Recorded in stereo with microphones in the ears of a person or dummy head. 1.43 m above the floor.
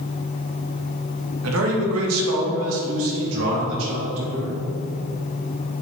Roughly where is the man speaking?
Right.